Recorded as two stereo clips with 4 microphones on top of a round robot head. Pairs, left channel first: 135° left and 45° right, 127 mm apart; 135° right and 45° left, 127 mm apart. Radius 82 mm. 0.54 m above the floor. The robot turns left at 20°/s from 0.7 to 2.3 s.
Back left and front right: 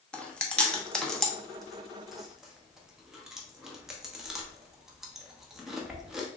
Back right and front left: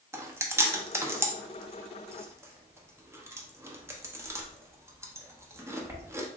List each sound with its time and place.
0.1 s chewing: 70° left, 0.9 m; by 6.3 s 35° left, 0.9 m